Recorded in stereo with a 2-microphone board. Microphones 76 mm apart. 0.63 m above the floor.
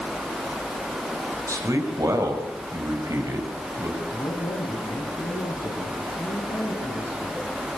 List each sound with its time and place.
1.5 s a man speaking: 45° right (ahead or behind), 4.5 m
4.1 s a man speaking: 70° left (ahead or behind), 4.5 m